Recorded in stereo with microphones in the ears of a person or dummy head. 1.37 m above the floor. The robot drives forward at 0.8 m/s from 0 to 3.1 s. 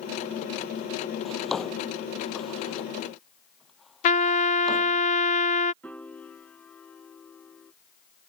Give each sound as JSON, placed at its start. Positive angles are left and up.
{"t": 1.2, "sound": "a drawer", "side_deg": 0}
{"t": 4.0, "sound": "a trumpet", "side_deg": 40}
{"t": 5.8, "sound": "a piano", "side_deg": 5}